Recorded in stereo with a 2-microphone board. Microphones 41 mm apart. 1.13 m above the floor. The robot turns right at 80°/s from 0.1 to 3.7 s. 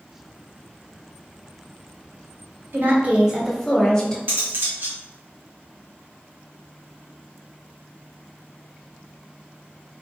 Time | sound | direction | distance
2.7 | a woman speaking | 65° right | 1.2 m
4.3 | cutlery clinking | 45° right (ahead or behind) | 1.2 m